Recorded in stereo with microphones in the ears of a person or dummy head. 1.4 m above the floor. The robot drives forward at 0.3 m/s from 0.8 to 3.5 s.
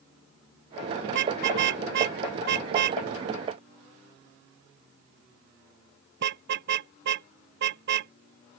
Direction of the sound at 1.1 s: 70° right (ahead or behind).